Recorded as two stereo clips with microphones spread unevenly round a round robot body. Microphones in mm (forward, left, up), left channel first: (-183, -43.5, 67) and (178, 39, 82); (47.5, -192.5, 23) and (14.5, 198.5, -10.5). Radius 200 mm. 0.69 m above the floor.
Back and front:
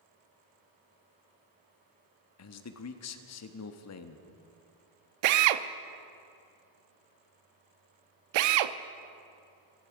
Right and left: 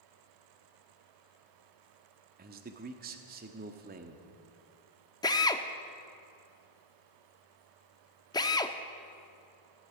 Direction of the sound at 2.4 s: 155° left.